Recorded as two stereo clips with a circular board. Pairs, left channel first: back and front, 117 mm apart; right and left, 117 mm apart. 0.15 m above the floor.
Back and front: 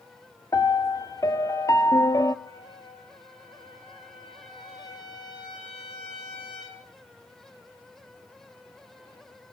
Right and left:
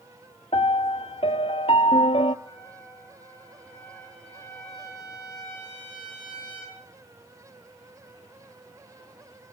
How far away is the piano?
About 0.5 m.